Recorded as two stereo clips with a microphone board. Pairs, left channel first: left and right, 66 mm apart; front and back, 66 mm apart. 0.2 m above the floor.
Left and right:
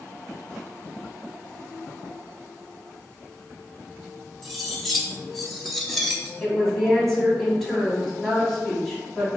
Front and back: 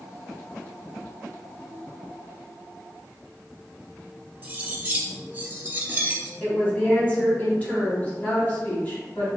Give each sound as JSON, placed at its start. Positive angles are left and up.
{"t": 4.4, "sound": "cutlery clinking", "azimuth_deg": 170, "distance_m": 0.6}
{"t": 6.4, "sound": "a woman speaking", "azimuth_deg": 10, "distance_m": 1.1}